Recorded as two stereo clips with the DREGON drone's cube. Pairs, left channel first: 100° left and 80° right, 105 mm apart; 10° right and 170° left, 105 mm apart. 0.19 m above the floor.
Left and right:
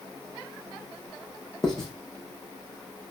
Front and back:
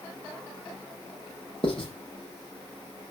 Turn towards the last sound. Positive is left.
turn(degrees=15)